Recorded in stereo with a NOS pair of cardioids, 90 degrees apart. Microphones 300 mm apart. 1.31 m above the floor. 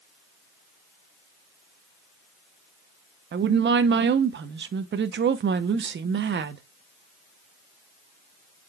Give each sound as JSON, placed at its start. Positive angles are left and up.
{"t": 3.3, "sound": "a woman speaking", "azimuth_deg": -40, "distance_m": 0.8}